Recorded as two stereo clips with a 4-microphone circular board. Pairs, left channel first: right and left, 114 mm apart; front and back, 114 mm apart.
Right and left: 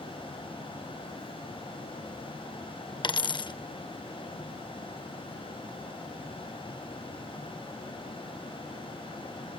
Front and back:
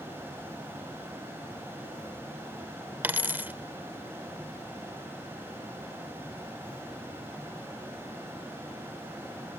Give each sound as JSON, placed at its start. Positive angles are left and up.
{"t": 3.0, "sound": "a dropped coin", "azimuth_deg": -115, "distance_m": 0.5}